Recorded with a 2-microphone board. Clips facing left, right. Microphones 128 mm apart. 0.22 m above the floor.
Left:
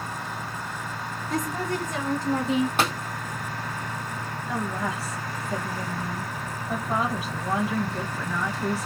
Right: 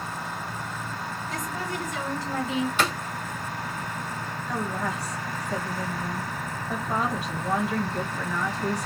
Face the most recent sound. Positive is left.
turn(degrees=5)  # may be behind; listen again after turning